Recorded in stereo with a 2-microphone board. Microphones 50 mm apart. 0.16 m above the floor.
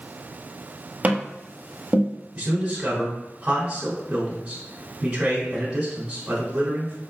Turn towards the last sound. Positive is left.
turn(degrees=-15)  # may be behind; listen again after turning